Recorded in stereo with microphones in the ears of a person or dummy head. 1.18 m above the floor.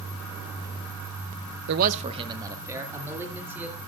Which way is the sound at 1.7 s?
65° right (ahead or behind).